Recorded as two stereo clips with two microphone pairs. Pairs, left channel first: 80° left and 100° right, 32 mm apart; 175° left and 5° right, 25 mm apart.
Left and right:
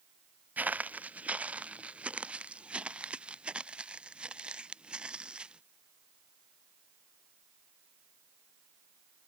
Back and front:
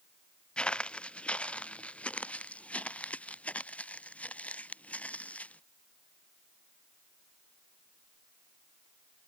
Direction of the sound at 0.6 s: 135° right.